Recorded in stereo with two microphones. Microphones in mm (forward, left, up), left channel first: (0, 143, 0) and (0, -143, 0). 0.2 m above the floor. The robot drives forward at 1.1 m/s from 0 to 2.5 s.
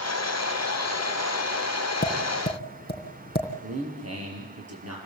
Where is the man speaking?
55° right (ahead or behind), 5.5 m.